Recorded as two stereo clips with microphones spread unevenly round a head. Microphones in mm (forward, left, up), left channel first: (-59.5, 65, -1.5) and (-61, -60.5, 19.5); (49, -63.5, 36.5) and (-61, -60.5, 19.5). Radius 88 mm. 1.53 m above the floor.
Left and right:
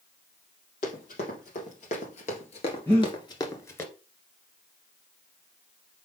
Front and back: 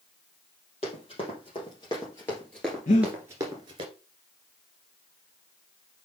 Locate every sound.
0.8 s running footsteps: 40° left, 3 m; by 3.9 s 165° left, 1.6 m
2.9 s breathing: 10° left, 2 m